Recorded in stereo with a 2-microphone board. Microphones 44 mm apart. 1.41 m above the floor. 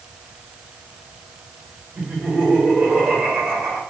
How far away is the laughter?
About 3.5 m.